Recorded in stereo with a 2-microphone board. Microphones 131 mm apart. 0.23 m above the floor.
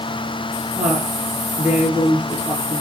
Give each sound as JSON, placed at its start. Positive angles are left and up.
{"t": 0.8, "sound": "a woman speaking", "side_deg": -10, "distance_m": 5.0}